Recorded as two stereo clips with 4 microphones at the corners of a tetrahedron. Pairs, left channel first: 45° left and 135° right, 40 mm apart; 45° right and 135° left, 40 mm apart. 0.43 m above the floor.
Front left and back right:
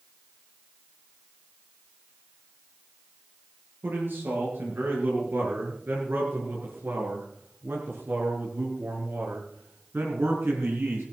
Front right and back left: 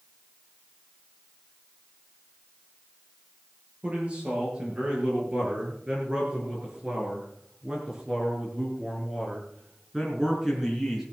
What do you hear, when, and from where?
3.8 s a man speaking: 165° right, 7.5 m; by 11.0 s 135° right, 4.5 m